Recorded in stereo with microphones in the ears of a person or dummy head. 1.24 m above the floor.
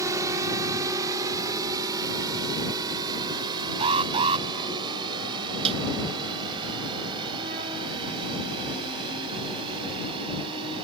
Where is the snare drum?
35° right (ahead or behind).